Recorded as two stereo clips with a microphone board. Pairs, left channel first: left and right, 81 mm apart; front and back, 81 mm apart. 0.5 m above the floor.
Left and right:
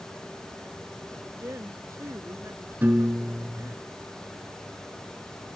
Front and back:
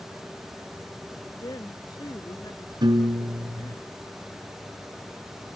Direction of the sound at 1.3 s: 35° right.